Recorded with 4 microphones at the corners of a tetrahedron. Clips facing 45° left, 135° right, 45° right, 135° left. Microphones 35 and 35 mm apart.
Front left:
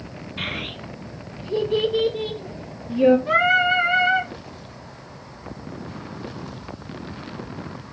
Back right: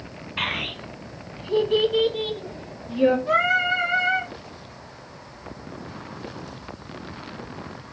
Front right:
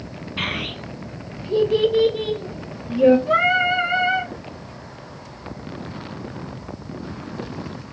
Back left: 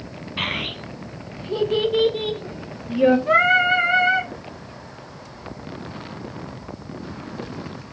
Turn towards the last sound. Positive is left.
turn(degrees=115)